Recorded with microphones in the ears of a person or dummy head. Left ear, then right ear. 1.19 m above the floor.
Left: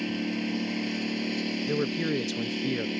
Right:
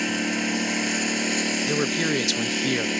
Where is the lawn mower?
50° right (ahead or behind).